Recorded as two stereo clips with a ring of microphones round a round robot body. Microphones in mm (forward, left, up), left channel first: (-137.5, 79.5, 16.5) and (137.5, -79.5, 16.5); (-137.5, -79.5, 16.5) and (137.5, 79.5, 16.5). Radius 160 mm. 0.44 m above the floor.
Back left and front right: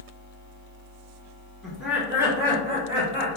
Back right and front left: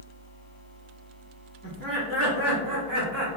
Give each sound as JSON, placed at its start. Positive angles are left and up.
{"t": 1.6, "sound": "laughter", "azimuth_deg": 60, "distance_m": 1.4}